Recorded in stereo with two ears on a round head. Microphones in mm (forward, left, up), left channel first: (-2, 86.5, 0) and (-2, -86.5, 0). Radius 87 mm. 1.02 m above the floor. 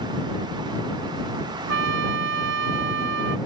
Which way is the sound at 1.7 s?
70° right (ahead or behind).